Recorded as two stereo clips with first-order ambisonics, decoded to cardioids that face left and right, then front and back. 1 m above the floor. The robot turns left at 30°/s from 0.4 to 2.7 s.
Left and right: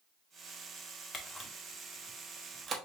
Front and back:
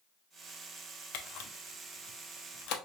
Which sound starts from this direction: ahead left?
A camera shutter, at 1.1 s.